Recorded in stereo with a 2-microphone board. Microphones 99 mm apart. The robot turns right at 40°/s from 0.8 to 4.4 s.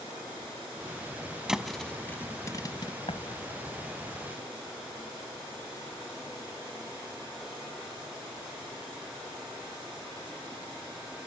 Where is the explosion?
65° left (ahead or behind); by 4.3 s 60° left (ahead or behind).